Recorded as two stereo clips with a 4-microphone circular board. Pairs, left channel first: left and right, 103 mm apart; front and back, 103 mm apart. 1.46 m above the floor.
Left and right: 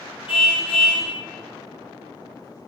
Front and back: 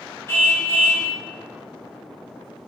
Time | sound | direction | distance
0.3 | a car horn | 65° left | 6 m